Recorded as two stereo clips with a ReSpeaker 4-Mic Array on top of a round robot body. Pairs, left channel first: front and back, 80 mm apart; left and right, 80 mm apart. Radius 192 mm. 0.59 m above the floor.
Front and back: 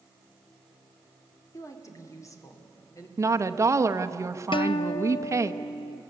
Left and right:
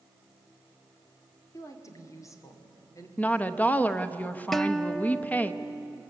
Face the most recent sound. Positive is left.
turn(degrees=5)